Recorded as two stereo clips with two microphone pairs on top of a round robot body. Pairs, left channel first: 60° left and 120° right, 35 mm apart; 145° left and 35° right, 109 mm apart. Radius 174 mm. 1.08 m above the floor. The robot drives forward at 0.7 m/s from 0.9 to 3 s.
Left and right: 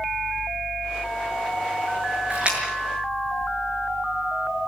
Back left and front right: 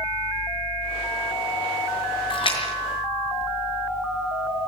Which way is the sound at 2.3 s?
175° right.